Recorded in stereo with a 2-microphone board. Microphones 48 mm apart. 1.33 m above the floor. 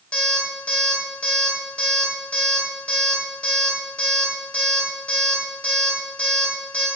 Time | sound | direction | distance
0.1 | an alarm clock | 25° left (ahead or behind) | 1.0 m